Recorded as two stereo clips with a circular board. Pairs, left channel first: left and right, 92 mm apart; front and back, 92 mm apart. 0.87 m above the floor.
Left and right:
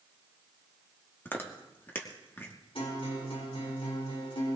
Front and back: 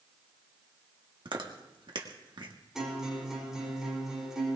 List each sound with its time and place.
1.2 s chewing: 155° left, 1.6 m
2.8 s a guitar: 95° left, 4 m